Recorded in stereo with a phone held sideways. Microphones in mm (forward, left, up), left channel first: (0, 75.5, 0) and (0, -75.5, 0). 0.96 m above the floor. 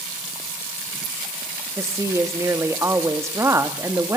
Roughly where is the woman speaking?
Centre.